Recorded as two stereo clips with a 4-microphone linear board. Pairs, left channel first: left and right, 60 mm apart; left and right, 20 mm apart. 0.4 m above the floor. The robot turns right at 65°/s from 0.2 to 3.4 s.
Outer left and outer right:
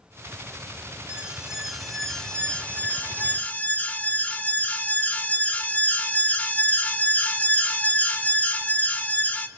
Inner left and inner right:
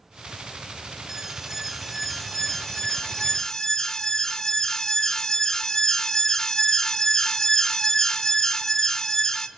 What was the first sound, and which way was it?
An alarm, 20° right (ahead or behind).